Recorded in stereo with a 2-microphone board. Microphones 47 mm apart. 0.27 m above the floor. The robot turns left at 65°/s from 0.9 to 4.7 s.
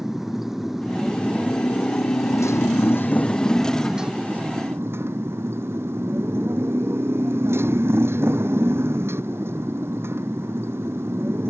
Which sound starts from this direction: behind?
A motorcycle, at 0.0 s.